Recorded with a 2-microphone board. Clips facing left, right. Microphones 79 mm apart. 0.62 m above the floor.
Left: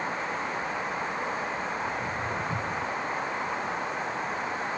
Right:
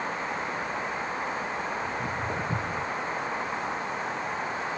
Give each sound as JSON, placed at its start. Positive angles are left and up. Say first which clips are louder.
{"t": 1.8, "sound": "footsteps", "louder": "even", "side_deg": -65, "distance_m": 1.8}